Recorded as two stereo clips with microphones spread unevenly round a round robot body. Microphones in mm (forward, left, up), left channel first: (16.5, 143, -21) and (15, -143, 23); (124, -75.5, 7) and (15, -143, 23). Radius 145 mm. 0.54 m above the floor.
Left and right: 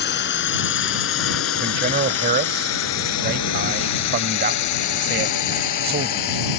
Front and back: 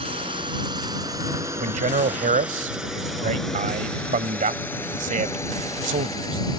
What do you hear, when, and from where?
0.0 s a drone: 145° left; by 6.6 s 110° left
1.6 s a man speaking: 150° right